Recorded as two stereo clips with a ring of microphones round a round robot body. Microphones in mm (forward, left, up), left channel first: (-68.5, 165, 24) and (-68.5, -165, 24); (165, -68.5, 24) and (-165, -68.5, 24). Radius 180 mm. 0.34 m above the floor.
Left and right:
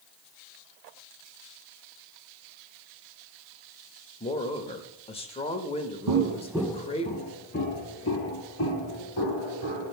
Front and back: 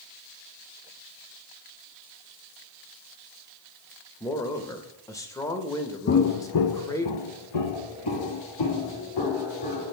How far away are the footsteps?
About 0.6 m.